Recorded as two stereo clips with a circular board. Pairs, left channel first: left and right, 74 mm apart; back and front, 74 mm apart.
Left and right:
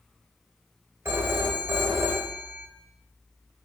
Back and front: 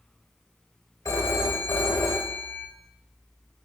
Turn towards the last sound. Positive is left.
turn(degrees=-140)